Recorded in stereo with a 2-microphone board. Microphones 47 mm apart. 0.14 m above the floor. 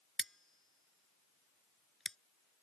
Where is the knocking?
I don't hear knocking.